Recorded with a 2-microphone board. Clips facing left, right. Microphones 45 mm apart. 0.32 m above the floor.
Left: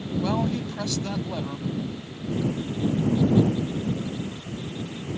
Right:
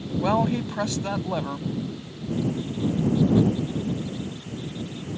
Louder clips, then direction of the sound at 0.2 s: Right 4 dB; 30° right (ahead or behind).